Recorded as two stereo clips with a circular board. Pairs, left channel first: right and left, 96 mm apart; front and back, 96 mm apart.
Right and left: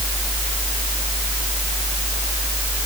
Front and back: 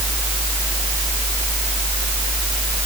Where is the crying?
No crying in this recording.